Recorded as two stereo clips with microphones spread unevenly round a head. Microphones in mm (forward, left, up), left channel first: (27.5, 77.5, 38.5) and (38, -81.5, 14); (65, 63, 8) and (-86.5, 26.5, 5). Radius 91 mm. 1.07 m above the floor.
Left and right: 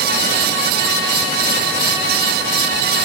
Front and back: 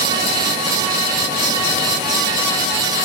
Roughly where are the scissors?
I don't hear scissors.